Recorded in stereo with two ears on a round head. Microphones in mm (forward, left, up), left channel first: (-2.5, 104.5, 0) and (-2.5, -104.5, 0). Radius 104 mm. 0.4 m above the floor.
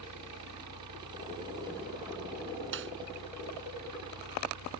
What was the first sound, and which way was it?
An engine running, 90° right.